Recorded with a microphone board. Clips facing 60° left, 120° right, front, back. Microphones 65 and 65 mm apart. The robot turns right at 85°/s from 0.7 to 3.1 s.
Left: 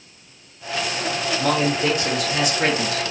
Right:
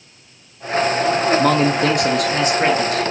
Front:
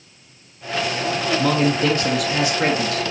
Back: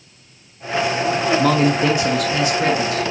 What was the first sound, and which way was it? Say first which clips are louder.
A man speaking: right 5 dB, back 1 dB; 155° right.